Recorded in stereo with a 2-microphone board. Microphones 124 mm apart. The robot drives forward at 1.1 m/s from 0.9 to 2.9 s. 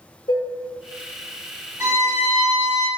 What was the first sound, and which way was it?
Dishes clattering, 45° left (ahead or behind).